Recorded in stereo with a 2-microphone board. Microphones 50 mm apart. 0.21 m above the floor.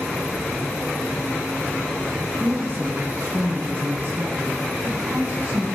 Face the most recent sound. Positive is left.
turn(degrees=-40)  # may be behind; listen again after turning